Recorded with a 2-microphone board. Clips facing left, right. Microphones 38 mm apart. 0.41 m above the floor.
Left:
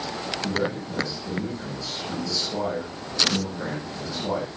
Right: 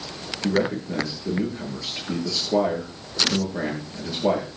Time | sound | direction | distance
0.4 | a man speaking | 60° right (ahead or behind) | 8.5 m